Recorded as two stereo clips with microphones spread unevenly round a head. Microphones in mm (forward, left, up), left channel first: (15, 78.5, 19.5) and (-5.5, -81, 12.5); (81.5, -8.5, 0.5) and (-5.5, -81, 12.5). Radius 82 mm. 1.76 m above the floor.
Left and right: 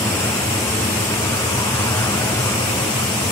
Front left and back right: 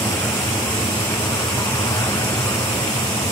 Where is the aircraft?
25° left; by 3.3 s 35° left.